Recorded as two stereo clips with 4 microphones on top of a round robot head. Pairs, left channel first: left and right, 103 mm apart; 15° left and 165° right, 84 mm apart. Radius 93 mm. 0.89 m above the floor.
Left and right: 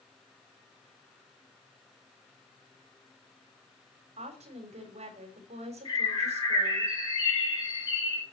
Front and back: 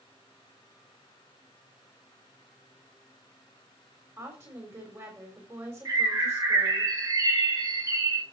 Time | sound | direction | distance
4.2 | a woman speaking | 105° right | 4 m
5.8 | a bird | 145° left | 5.5 m